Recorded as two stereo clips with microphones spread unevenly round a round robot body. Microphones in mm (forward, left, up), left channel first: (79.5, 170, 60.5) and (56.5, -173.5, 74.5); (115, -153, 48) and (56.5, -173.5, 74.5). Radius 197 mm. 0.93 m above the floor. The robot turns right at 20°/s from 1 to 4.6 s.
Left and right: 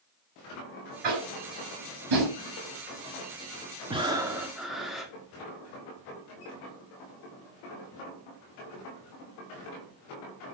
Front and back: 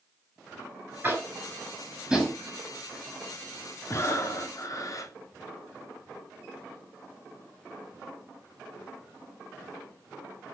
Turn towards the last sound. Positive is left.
turn(degrees=-5)